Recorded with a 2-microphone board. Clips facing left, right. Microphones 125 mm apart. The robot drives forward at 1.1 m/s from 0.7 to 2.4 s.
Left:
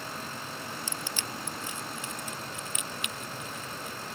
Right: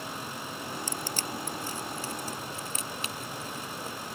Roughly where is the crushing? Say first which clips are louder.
Right 3 dB; right.